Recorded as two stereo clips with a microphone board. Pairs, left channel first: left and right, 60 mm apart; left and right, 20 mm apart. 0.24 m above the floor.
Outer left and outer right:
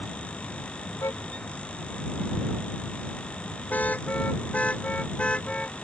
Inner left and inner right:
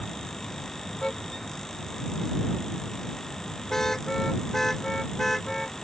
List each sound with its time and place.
1.0 s a car horn: 55° left (ahead or behind); by 5.7 s 20° left (ahead or behind)